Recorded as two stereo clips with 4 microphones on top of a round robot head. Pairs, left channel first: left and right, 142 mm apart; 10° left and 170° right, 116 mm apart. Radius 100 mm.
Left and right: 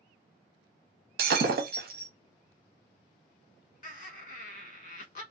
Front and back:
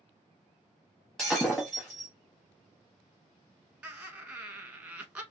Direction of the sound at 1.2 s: 75° right.